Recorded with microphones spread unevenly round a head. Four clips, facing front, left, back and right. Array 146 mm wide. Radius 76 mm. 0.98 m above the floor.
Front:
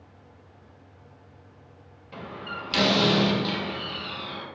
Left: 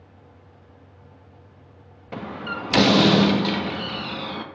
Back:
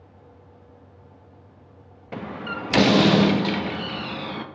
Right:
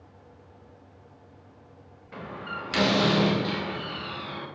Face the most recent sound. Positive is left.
turn(degrees=140)